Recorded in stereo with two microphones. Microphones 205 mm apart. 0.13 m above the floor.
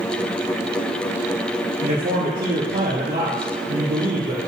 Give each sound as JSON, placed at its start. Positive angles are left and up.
{"t": 1.8, "sound": "a man speaking", "side_deg": -50, "distance_m": 2.5}